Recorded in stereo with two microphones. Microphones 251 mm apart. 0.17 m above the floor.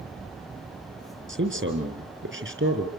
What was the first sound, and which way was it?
A man speaking, 55° right (ahead or behind).